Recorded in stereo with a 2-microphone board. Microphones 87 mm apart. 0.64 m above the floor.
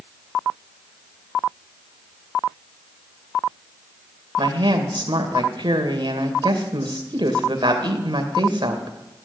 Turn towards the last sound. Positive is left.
turn(degrees=-60)  # may be behind; listen again after turning